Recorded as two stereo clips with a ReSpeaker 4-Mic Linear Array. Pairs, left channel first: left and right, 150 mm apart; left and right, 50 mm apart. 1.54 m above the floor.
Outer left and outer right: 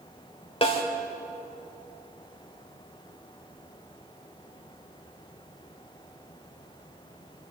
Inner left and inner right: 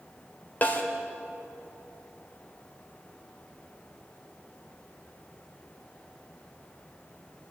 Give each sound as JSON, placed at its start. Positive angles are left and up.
{"t": 0.6, "sound": "a snare drum", "side_deg": 35, "distance_m": 2.5}